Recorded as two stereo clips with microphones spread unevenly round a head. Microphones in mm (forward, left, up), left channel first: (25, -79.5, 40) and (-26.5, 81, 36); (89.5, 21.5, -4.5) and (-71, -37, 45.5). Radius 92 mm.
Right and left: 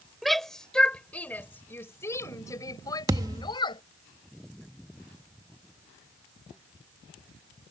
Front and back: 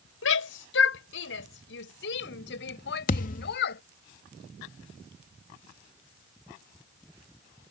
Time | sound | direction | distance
0.2 | a shout | 15° left | ?
3.1 | a thud | 55° left | ?